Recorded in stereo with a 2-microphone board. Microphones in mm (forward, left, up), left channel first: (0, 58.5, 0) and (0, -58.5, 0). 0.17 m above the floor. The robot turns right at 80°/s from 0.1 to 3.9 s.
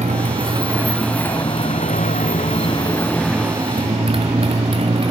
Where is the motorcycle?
75° right; by 5.1 s 130° right.